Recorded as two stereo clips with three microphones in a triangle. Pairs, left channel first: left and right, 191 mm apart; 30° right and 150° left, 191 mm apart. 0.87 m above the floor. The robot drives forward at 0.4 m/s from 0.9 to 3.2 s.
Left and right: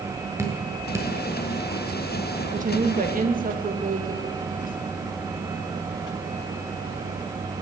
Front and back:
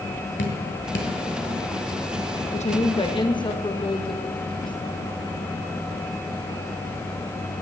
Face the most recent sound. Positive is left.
turn(degrees=-85)